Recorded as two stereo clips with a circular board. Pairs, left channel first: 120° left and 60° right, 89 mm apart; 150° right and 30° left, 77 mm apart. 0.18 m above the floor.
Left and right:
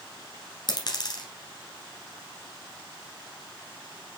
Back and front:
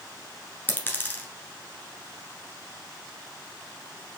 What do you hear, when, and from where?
0.7 s a dropped coin: 150° left, 1.2 m